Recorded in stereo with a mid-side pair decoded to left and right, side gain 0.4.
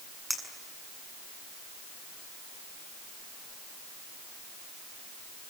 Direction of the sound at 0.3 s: 5° right.